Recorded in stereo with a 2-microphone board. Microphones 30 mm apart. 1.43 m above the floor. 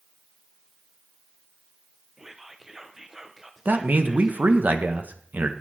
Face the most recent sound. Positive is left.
turn(degrees=-85)